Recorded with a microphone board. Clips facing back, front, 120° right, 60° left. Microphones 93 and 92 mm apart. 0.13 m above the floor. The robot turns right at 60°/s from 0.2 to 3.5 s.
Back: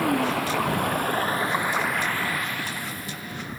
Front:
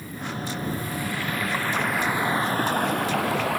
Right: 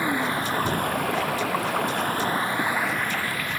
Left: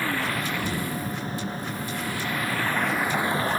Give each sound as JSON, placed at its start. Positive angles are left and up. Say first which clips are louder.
{"t": 0.0, "sound": "running water", "louder": "back 10 dB, right 3 dB", "azimuth_deg": 170}